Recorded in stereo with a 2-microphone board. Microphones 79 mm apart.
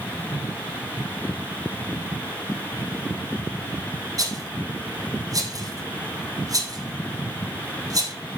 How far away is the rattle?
About 3.5 m.